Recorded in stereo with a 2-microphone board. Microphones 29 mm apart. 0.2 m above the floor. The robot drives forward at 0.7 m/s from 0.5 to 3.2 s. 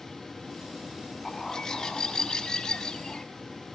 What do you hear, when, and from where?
1.2 s a bird: 20° left (ahead or behind), 1.7 m; by 3.2 s 25° left (ahead or behind), 1.4 m